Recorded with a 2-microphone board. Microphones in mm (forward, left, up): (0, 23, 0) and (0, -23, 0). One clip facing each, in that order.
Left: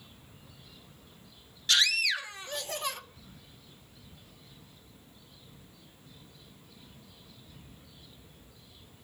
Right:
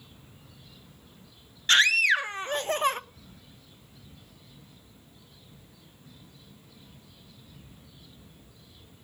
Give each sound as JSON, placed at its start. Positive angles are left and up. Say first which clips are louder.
{"t": 1.7, "sound": "a scream", "louder": "right 7 dB", "side_deg": -40, "distance_m": 0.5}